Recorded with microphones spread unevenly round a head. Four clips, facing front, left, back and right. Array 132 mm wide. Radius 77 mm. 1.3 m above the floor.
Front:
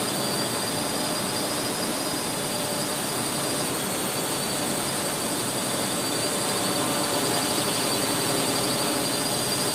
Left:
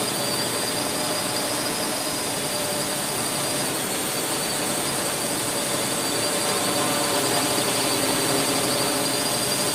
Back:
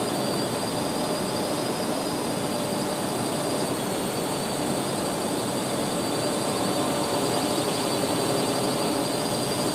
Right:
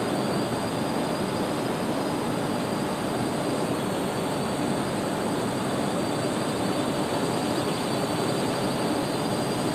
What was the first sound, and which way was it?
A drone, 110° left.